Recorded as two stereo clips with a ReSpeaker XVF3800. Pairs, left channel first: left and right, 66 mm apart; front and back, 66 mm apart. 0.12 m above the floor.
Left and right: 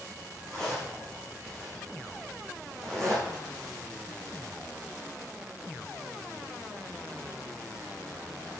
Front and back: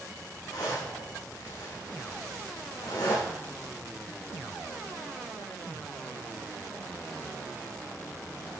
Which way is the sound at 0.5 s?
10° left.